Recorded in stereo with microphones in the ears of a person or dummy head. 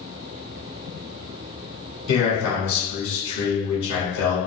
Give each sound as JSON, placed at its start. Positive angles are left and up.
{"t": 2.1, "sound": "a man speaking", "side_deg": 80, "distance_m": 1.5}